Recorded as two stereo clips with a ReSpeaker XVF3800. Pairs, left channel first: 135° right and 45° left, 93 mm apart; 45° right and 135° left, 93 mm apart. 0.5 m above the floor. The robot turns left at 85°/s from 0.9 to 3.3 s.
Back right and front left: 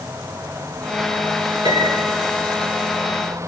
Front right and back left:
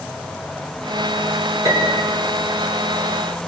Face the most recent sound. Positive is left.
turn(degrees=-60)